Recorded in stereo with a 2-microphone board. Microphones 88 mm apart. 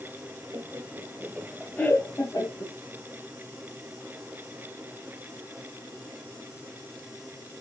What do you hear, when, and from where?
0.5 s laughter: 50° right (ahead or behind), 1.2 m; by 2.7 s 55° left (ahead or behind), 1.5 m